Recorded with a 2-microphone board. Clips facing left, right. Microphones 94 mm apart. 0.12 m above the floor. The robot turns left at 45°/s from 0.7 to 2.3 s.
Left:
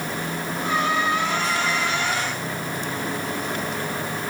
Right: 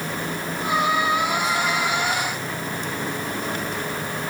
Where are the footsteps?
I don't hear footsteps.